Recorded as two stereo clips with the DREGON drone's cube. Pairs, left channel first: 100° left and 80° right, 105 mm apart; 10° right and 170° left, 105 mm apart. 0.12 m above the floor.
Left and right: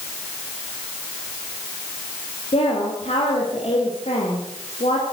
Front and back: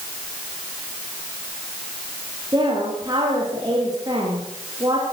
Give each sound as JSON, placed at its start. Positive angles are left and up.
{"t": 2.5, "sound": "a woman speaking", "azimuth_deg": 115, "distance_m": 9.5}